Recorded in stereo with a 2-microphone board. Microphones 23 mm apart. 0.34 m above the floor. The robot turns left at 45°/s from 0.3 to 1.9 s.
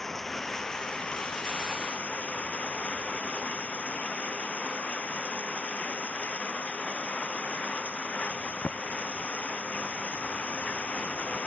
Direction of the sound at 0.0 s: 165° left.